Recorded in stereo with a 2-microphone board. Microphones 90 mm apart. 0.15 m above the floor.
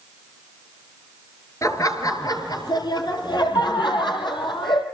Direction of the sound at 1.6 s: 35° left (ahead or behind).